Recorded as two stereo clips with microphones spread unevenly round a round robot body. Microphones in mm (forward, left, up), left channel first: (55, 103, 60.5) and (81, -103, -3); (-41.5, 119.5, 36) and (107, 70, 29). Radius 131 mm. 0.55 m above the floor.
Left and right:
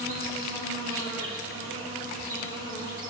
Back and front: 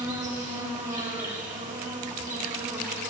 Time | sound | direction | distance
0.0 | an insect | 60° right | 5 m